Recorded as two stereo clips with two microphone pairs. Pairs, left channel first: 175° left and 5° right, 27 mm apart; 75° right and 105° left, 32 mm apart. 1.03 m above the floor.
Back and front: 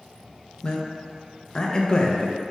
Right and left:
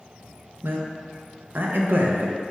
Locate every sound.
0.6 s a man speaking: 115° left, 0.5 m